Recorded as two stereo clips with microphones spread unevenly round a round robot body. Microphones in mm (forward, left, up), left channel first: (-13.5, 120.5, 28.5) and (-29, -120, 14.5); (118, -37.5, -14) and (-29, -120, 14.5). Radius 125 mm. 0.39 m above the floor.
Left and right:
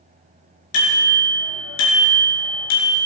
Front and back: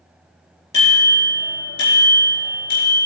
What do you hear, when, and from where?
0.7 s a bicycle bell: 105° left, 5 m; by 3.0 s 95° left, 4 m